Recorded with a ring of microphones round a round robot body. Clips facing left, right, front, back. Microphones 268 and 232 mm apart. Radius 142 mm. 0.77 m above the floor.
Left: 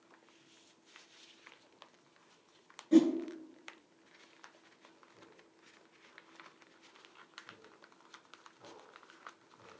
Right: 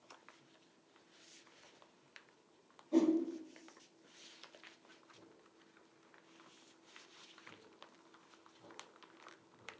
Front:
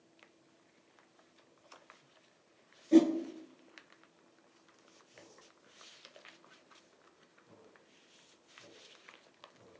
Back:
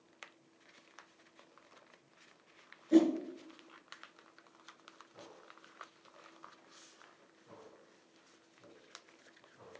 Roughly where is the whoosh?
Left.